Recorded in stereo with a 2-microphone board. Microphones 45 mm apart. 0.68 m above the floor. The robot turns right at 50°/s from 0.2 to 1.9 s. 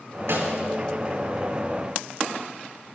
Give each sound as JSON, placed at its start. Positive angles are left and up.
{"t": 0.3, "sound": "a snare drum", "side_deg": -90, "distance_m": 4.5}